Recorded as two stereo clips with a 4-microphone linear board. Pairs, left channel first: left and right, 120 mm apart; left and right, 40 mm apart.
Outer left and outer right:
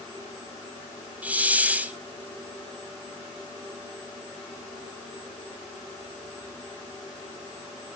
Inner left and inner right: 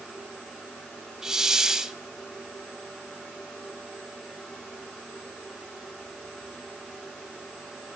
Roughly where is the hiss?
Centre.